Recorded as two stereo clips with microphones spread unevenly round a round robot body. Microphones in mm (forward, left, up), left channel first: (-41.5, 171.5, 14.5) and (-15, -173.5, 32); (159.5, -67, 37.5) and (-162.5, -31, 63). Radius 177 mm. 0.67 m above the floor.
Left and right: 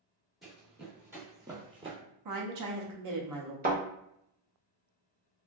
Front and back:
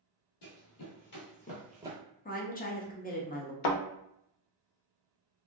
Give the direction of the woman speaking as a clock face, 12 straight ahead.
2 o'clock.